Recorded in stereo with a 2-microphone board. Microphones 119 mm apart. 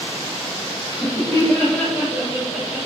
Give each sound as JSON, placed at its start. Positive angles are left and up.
{"t": 0.9, "sound": "laughter", "side_deg": 30, "distance_m": 1.3}